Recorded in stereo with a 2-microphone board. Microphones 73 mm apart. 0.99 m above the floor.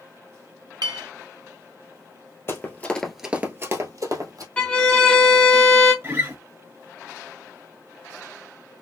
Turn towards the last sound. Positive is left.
turn(degrees=-35)  # may be behind; listen again after turning